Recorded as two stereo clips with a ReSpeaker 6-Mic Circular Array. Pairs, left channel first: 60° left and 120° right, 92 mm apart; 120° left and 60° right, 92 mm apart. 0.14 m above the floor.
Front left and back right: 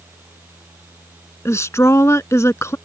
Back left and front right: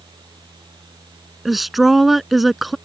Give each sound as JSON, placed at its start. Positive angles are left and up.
{"t": 1.4, "sound": "a woman speaking", "azimuth_deg": 30}